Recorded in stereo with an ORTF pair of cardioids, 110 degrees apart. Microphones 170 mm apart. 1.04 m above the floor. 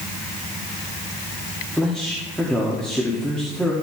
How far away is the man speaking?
About 2.5 m.